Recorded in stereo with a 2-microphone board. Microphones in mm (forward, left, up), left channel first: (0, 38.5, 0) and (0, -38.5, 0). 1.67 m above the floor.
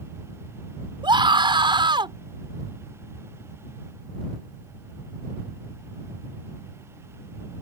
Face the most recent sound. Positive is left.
turn(degrees=-80)